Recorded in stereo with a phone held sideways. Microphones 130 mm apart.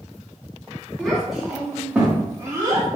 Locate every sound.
1.0 s a child speaking: 5° left (ahead or behind), 2 m; by 2.9 s 30° right (ahead or behind), 1.6 m